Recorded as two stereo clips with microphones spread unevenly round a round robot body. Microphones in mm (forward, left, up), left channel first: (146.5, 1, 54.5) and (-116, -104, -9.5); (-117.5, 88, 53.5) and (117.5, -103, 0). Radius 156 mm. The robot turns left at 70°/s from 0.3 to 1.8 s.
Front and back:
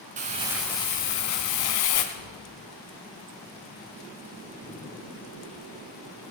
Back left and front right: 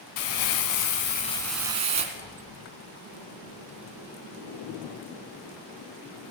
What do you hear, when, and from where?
0.2 s crumpling: 135° left, 1.5 m; by 2.0 s 30° left, 1.5 m
2.1 s tapping: 70° left, 3.5 m